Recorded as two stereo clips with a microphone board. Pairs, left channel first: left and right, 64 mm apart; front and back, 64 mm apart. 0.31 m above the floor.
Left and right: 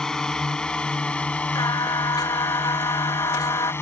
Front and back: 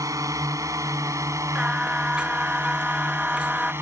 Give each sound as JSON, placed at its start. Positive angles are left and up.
{"t": 0.0, "sound": "a drone", "azimuth_deg": 170}
{"t": 1.6, "sound": "singing", "azimuth_deg": 105}